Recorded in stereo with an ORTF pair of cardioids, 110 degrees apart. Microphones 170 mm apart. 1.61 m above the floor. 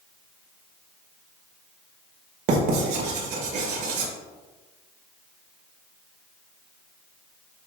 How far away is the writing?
About 2 m.